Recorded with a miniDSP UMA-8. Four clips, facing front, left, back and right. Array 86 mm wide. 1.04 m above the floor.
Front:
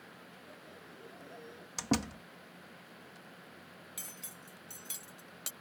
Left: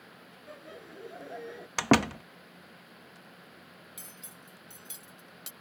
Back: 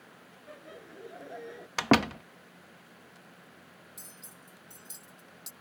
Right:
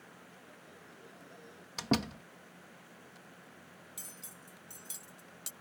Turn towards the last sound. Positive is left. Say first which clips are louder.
# left 2 dB, front 1 dB
turn(degrees=10)